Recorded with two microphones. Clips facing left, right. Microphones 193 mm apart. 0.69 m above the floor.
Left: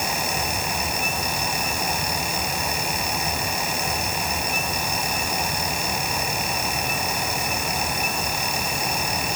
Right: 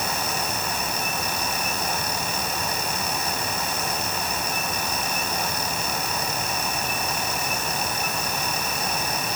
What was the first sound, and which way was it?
Only background noise.